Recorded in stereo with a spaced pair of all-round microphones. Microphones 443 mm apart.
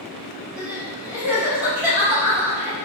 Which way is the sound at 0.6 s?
5° right (ahead or behind).